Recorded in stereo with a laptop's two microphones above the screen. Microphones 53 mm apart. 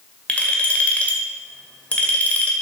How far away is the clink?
About 2 m.